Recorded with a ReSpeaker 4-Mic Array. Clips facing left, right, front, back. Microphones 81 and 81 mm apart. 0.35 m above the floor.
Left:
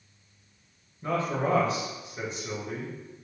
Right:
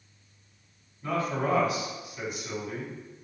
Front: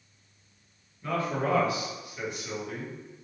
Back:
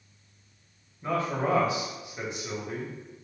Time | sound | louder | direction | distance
1.0 | a man speaking | left 1 dB, back 1 dB | 125° left | 1.1 m